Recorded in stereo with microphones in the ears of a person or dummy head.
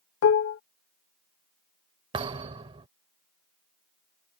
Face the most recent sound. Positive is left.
turn(degrees=-30)  # may be behind; listen again after turning